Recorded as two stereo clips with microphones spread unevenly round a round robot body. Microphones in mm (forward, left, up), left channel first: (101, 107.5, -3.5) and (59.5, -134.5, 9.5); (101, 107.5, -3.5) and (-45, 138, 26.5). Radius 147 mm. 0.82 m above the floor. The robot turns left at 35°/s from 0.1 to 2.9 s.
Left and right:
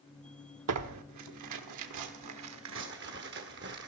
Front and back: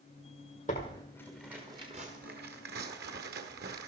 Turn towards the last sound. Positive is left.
turn(degrees=-155)